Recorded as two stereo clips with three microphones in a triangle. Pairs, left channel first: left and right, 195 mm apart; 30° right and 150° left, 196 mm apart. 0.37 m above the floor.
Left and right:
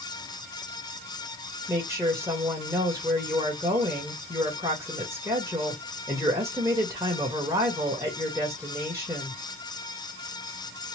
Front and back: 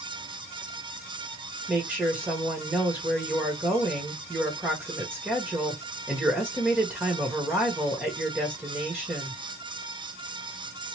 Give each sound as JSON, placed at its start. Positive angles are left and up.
{"t": 1.7, "sound": "a woman speaking", "azimuth_deg": -140, "distance_m": 1.2}